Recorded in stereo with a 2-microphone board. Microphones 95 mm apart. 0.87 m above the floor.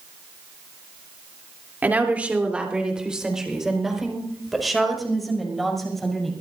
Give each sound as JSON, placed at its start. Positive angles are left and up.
{"t": 1.8, "sound": "a woman speaking", "side_deg": -20, "distance_m": 3.0}